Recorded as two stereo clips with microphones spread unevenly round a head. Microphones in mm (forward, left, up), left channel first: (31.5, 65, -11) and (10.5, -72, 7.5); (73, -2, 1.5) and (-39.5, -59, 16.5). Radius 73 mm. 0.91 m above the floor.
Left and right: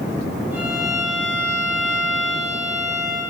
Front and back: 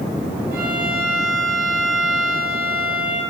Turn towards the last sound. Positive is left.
turn(degrees=-175)